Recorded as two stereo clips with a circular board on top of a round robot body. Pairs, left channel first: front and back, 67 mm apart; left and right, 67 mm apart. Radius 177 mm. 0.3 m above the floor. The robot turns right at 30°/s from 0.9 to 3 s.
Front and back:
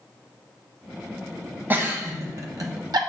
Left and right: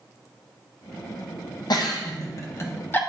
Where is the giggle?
115° left, 1.0 m; by 3.0 s 155° left, 1.0 m.